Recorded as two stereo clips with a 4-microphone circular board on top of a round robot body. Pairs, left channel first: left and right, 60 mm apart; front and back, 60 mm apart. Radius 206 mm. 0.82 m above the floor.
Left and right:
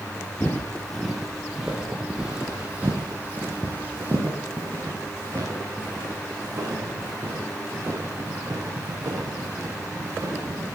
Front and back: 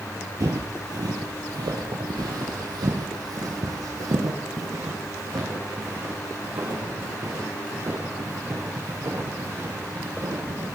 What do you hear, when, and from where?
0.4 s footsteps: 155° left, 1.1 m; by 10.8 s 140° right, 6 m